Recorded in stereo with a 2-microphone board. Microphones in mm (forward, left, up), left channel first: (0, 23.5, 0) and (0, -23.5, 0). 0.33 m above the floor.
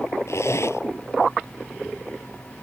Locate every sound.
0.3 s a zipper: 70° left (ahead or behind)